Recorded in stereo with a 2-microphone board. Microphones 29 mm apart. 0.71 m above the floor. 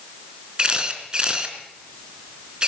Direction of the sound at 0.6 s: 30° right (ahead or behind).